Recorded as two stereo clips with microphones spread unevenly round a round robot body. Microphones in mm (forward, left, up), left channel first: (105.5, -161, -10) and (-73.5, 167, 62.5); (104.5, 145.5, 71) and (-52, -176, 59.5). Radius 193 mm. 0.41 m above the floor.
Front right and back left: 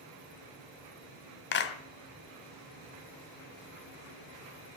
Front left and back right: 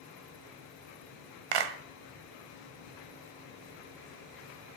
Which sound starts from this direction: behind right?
A clap, at 1.5 s.